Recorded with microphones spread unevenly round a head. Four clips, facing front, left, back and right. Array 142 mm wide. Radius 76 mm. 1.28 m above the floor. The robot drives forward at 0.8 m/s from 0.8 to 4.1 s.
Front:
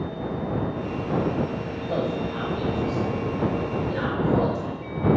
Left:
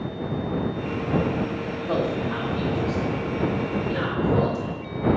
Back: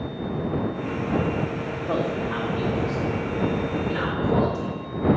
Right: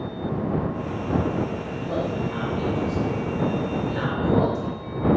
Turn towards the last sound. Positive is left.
turn(degrees=160)